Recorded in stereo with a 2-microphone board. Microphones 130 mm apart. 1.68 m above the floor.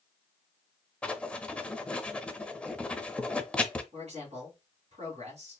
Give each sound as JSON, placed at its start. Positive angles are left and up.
{"t": 1.0, "sound": "writing", "side_deg": 10, "distance_m": 0.5}
{"t": 3.9, "sound": "a man speaking", "side_deg": -60, "distance_m": 3.0}